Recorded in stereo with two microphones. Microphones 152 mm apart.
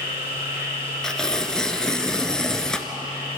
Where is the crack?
No crack in this recording.